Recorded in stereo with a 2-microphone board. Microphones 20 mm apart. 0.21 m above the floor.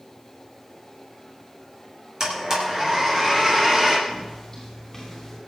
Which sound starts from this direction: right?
A blender, at 2.2 s.